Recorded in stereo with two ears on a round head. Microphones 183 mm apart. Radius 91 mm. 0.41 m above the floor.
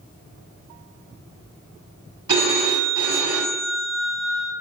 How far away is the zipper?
No zipper in this recording.